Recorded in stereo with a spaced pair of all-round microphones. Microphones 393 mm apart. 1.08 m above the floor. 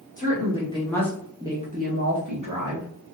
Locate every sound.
0.2 s a woman speaking: 20° left (ahead or behind), 1.3 m; by 2.9 s 65° right (ahead or behind), 0.8 m